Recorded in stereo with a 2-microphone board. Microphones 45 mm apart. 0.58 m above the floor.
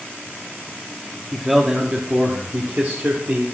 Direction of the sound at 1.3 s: Centre (ahead or behind).